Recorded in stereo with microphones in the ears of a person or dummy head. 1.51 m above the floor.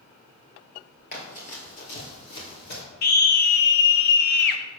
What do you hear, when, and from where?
1.1 s running footsteps: 45° left (ahead or behind), 2 m; by 2.8 s 55° left (ahead or behind), 3 m
3.0 s a scream: 55° left (ahead or behind), 0.8 m